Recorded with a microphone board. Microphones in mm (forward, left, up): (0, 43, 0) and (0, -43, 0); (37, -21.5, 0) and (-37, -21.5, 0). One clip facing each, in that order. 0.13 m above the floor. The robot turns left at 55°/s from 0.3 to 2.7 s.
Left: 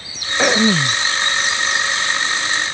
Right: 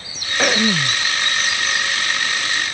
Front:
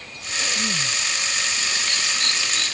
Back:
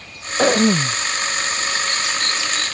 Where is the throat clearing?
170° left; by 1.0 s 140° left.